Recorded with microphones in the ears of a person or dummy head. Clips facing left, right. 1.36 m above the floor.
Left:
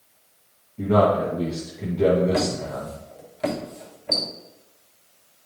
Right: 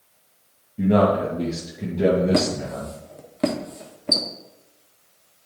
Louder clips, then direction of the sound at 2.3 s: Right 2 dB; 55° right (ahead or behind).